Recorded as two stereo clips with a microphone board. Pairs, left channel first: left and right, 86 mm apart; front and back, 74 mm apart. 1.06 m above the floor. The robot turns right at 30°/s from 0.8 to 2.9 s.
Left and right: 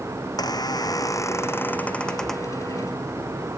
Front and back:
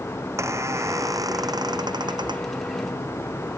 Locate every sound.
0.2 s a squeak: 130° left; by 2.5 s straight behind